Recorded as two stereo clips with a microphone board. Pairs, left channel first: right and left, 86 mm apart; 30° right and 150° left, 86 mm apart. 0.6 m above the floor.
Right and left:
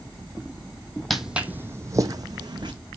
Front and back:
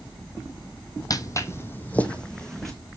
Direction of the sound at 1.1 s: Straight ahead.